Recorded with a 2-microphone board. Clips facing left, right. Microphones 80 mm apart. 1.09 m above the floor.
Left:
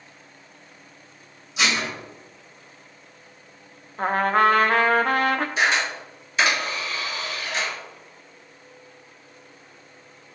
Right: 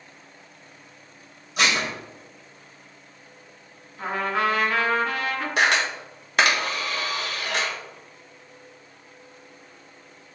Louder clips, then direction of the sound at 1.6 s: Right 1 dB; 55° right (ahead or behind).